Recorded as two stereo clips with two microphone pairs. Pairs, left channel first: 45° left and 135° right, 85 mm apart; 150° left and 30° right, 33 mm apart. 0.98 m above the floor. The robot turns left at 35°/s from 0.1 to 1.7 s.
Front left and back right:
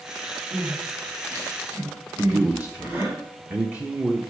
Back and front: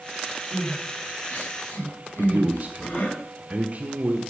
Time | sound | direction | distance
0.5 | crying | 165° right | 5.5 m
2.2 | a man speaking | 65° right | 1.2 m